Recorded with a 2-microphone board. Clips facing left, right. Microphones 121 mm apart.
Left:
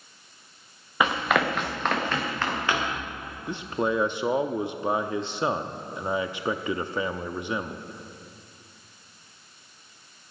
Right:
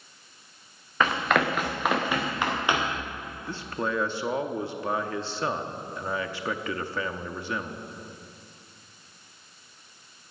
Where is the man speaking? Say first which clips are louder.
Left 4 dB; 20° left (ahead or behind), 0.6 m.